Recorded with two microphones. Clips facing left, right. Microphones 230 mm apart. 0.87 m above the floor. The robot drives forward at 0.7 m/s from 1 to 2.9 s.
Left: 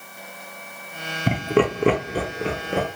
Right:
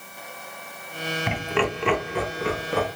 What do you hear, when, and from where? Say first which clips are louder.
1.3 s laughter: left 7 dB; 40° left (ahead or behind), 0.6 m; by 2.9 s 25° left (ahead or behind), 1.0 m